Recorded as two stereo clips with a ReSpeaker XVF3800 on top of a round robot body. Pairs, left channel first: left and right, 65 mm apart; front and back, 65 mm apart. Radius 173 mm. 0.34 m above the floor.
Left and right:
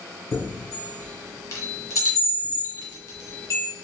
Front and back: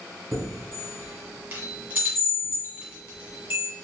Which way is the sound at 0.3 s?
120° left.